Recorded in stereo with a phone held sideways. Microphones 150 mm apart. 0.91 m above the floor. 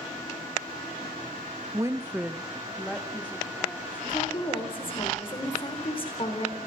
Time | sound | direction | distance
1.7 | a woman speaking | 25° right (ahead or behind) | 0.8 m
4.1 | a woman speaking | 40° left (ahead or behind) | 4 m